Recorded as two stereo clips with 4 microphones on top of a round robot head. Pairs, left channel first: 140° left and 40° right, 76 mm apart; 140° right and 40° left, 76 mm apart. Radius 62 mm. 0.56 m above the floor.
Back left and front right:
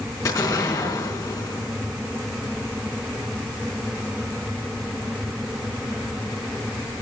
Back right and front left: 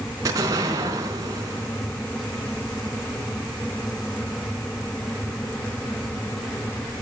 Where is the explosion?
90° left, 4 m.